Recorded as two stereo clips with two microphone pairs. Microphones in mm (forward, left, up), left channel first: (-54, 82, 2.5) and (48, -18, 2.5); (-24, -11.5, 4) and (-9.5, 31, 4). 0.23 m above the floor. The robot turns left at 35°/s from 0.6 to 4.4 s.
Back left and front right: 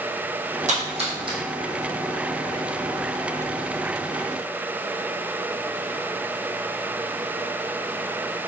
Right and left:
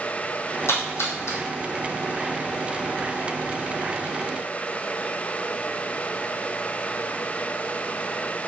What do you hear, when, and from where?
0.7 s a splash: 75° right, 1.4 m; by 1.4 s 100° right, 1.4 m